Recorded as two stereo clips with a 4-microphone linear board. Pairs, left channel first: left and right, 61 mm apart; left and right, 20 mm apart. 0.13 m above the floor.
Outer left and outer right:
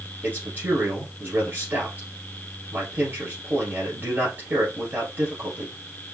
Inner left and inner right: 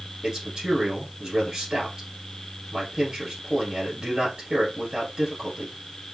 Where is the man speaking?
35° right (ahead or behind), 1.3 m.